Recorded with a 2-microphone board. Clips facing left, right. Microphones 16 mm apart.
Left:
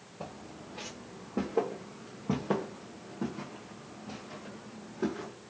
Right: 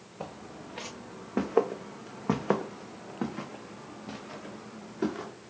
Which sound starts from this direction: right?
Footsteps, at 0.2 s.